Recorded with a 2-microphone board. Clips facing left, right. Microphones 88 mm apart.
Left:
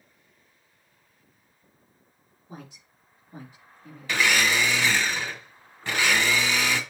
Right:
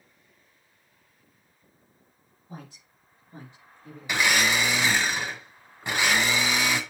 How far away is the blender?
About 1.6 m.